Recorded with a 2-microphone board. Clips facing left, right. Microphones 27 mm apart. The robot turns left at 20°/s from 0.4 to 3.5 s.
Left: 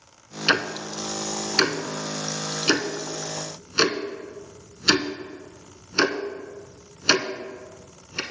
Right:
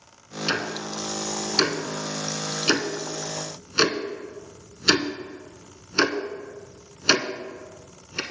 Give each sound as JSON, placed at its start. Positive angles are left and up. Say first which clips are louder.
{"t": 0.5, "sound": "ticking", "louder": "left 5 dB", "side_deg": 35, "distance_m": 0.6}